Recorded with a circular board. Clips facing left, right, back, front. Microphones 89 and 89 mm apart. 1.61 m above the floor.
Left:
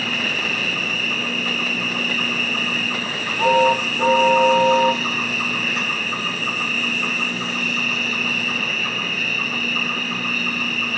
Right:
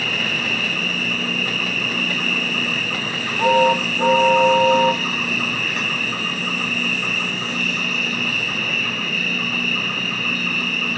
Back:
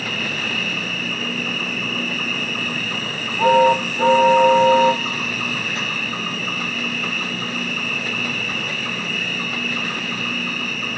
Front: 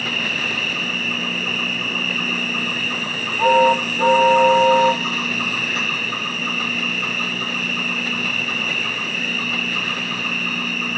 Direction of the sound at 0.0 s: 25° left.